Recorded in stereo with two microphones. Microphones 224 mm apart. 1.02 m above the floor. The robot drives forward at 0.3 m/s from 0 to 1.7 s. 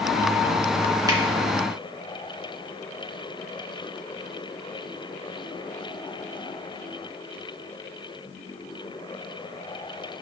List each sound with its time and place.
1.1 s a finger snap: 15° right (ahead or behind), 1.4 m